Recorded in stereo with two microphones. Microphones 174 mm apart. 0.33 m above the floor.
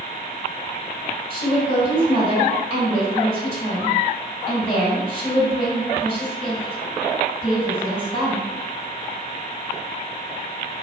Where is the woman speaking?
35° left (ahead or behind), 1.9 m.